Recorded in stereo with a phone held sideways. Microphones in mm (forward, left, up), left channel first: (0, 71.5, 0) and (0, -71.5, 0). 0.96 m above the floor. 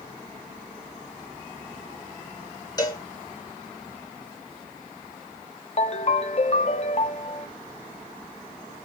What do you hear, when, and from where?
2.8 s a cowbell: 25° left (ahead or behind), 1.4 m
5.8 s a ringtone: 45° left (ahead or behind), 0.5 m